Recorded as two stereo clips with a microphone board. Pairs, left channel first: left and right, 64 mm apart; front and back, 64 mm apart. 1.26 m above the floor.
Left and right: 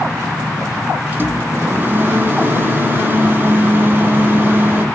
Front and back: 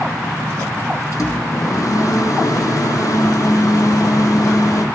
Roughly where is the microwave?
Ahead right.